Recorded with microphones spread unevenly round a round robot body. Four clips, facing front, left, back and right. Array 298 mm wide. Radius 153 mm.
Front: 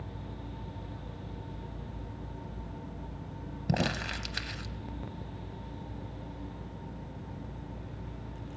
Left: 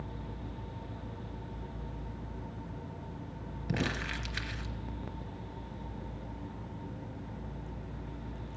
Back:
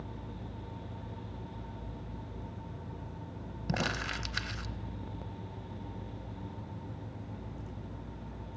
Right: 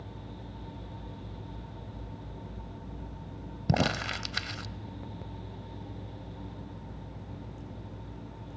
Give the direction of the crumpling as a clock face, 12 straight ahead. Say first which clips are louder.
Right 6 dB, front 3 dB; 2 o'clock.